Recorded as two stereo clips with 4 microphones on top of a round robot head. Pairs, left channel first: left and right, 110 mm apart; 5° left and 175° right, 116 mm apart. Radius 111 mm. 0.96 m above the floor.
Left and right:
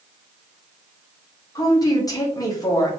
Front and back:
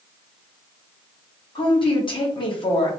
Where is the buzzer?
I don't hear a buzzer.